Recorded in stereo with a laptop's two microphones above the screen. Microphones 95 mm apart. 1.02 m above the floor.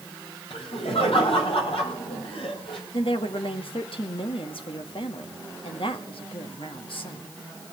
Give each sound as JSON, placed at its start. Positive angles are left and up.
{"t": 0.5, "sound": "laughter", "side_deg": 80, "distance_m": 7.0}
{"t": 2.9, "sound": "a woman speaking", "side_deg": 65, "distance_m": 1.8}